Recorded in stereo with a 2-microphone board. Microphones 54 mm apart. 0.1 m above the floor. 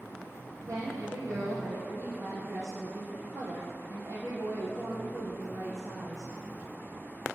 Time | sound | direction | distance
0.6 | a woman speaking | 70° right (ahead or behind) | 4 m